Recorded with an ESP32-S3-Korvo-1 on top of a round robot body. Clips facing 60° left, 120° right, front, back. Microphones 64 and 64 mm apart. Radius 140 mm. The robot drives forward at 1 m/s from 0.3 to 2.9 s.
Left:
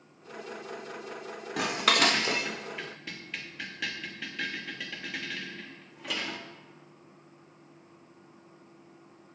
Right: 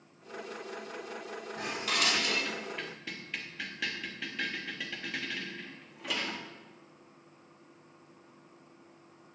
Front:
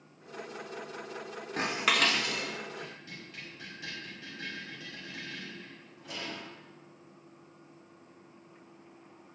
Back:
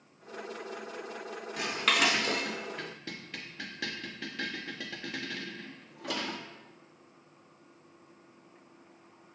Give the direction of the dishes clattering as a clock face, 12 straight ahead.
10 o'clock.